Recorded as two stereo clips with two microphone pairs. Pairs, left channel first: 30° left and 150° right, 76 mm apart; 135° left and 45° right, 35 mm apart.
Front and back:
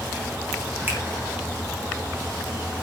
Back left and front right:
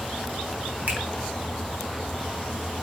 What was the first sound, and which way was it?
A finger snap, 90° right.